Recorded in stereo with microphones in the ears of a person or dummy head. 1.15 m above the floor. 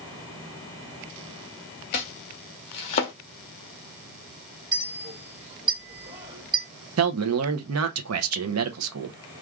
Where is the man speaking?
75° right (ahead or behind), 0.7 m.